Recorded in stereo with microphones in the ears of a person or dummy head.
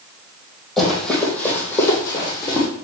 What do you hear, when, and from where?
0.8 s running footsteps: centre (ahead or behind), 3.5 m; by 2.7 s 25° left (ahead or behind), 4.5 m